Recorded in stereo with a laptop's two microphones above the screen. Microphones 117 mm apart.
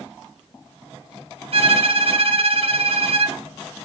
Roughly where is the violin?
Right.